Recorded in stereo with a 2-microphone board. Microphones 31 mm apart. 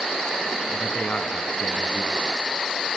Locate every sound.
0.7 s a man speaking: 55° left (ahead or behind), 2.5 m